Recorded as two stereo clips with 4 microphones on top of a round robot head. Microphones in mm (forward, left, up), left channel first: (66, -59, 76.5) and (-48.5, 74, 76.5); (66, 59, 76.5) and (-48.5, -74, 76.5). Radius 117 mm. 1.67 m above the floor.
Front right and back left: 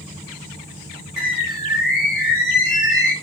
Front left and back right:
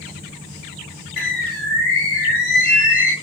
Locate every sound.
1.2 s a bird: 45° left, 1.6 m